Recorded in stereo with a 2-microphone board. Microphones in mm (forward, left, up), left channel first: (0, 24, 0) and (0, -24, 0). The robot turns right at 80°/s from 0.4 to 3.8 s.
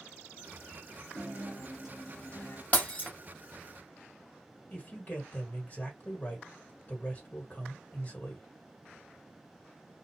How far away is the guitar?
About 1.4 m.